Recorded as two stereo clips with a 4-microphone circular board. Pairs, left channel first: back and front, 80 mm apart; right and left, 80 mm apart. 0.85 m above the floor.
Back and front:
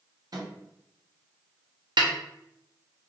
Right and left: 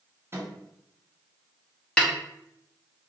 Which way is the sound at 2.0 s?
10° right.